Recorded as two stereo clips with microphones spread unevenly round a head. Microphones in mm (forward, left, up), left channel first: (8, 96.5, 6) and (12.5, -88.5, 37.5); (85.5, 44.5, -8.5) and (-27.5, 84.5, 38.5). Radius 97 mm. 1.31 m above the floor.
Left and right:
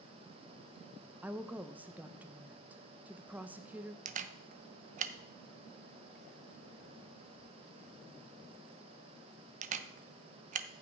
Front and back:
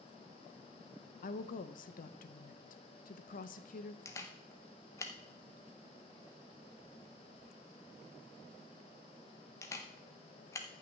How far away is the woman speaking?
About 0.7 m.